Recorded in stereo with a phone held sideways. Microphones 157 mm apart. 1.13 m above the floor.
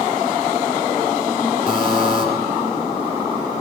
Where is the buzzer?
50° left (ahead or behind), 6 m.